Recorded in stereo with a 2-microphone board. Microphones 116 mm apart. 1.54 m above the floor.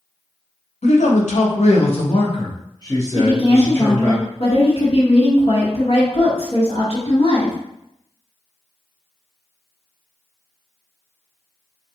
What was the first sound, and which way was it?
A man speaking, 70° left (ahead or behind).